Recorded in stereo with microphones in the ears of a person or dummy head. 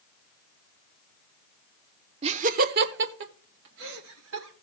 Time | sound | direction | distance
2.2 | laughter | 30° right (ahead or behind) | 1.0 m